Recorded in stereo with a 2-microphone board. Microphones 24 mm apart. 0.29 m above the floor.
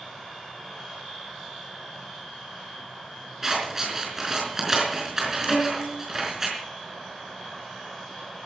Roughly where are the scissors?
Centre.